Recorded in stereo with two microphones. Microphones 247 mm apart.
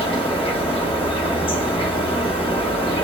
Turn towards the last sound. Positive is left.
turn(degrees=20)  # may be behind; listen again after turning